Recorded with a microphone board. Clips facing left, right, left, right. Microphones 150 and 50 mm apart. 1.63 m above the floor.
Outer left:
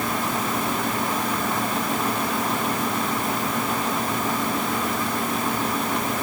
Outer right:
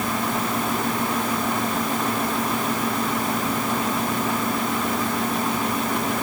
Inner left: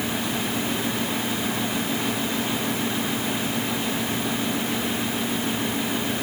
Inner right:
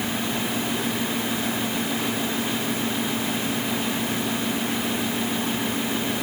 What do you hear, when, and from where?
Only background noise.